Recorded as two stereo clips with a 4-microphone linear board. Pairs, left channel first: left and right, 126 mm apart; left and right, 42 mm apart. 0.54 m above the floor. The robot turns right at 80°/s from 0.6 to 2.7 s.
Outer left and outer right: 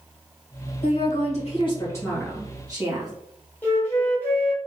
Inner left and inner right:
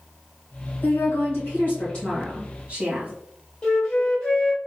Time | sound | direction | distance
0.8 | a woman speaking | 65° left | 2 m
3.6 | a flute | 15° left (ahead or behind) | 1.7 m